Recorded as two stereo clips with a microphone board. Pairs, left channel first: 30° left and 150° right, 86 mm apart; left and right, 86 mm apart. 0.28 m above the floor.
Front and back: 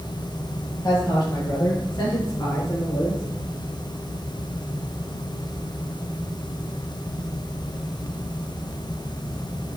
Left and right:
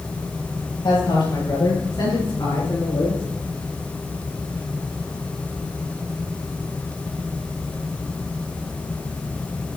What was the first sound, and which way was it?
A woman speaking, 70° left.